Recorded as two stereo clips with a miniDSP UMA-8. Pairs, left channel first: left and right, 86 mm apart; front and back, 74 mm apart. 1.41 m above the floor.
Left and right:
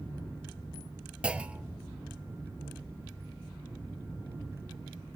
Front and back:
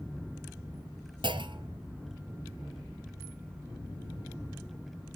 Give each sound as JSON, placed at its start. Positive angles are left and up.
{"t": 1.2, "sound": "a clunk", "azimuth_deg": -170, "distance_m": 0.7}